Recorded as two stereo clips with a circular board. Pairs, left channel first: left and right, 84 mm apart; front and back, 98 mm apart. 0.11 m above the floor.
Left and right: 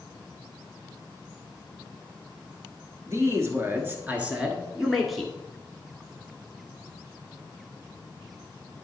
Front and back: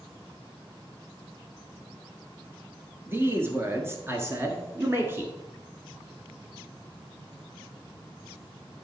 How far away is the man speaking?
About 1.9 m.